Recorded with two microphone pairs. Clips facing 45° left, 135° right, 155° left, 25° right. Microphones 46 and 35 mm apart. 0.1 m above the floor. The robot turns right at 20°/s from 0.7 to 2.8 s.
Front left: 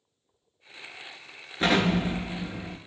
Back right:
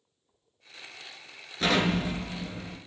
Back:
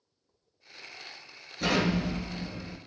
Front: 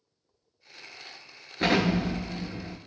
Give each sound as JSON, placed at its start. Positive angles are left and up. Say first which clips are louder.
{"t": 1.6, "sound": "an explosion", "louder": "front left 2 dB, front 3 dB", "azimuth_deg": -15, "distance_m": 0.6}